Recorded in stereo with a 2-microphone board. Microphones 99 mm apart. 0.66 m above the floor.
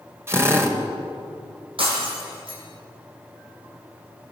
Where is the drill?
25° right (ahead or behind), 3.5 m.